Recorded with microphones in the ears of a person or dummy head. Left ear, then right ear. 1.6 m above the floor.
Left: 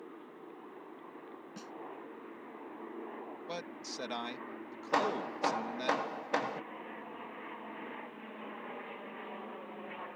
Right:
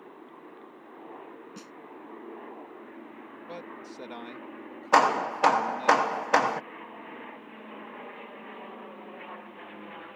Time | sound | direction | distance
1.6 | a snare drum | 5° right (ahead or behind) | ?
3.5 | a man speaking | 40° left (ahead or behind) | ?
4.9 | hammering | 40° right (ahead or behind) | ?